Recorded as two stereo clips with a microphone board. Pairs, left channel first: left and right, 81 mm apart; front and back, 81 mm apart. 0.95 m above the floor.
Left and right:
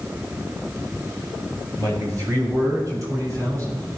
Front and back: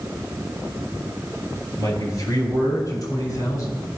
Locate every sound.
1.8 s a man speaking: 40° right, 7 m